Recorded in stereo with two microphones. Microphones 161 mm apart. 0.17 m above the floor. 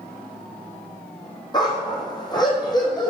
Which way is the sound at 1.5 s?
25° left (ahead or behind).